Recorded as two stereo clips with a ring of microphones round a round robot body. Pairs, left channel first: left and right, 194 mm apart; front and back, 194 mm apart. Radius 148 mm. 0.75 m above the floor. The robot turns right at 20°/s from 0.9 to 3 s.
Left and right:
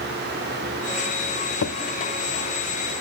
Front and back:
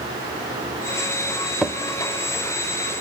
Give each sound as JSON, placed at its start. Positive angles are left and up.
{"t": 1.6, "sound": "a drawer", "azimuth_deg": 90, "distance_m": 1.2}